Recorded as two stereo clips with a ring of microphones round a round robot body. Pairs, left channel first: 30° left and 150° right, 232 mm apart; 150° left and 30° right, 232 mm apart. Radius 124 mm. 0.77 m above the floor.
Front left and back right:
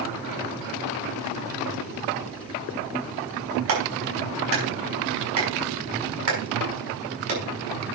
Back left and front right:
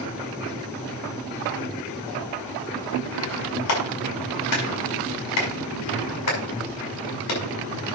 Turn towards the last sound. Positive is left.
turn(degrees=175)